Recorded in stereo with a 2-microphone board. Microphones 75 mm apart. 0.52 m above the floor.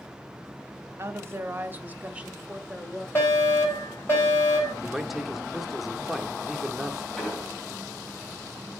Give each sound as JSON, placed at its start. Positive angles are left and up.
{"t": 1.0, "sound": "a woman speaking", "side_deg": -35, "distance_m": 0.9}
{"t": 3.1, "sound": "a fire alarm", "side_deg": 30, "distance_m": 6.0}
{"t": 4.8, "sound": "a man speaking", "side_deg": -5, "distance_m": 0.9}
{"t": 7.2, "sound": "an explosion", "side_deg": 10, "distance_m": 4.0}